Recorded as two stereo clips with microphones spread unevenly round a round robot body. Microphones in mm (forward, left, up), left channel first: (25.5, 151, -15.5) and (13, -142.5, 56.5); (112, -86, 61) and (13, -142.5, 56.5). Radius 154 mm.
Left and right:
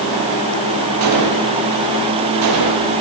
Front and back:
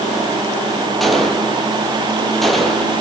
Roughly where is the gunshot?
Ahead right.